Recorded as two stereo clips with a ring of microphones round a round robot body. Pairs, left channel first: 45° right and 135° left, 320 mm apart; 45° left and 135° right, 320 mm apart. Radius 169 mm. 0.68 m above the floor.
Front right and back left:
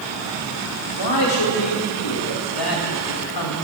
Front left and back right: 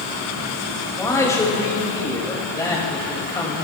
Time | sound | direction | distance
1.0 | a man speaking | 35° right | 4 m